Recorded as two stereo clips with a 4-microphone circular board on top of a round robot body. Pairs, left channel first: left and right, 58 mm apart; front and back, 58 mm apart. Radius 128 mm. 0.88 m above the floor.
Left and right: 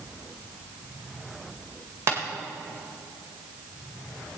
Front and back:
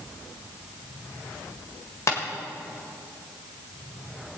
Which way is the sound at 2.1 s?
45° right.